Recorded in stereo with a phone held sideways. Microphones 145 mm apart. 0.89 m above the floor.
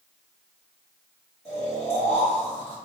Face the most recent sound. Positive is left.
turn(degrees=45)  # may be behind; listen again after turning